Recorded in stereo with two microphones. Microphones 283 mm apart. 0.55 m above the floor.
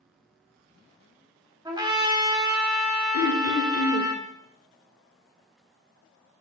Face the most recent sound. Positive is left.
turn(degrees=55)  # may be behind; listen again after turning